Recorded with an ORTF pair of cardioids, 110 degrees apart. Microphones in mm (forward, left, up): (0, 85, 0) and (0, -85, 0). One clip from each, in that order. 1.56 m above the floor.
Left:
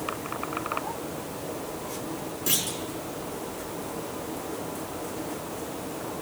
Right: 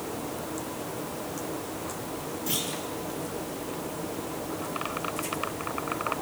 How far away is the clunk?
About 5.5 m.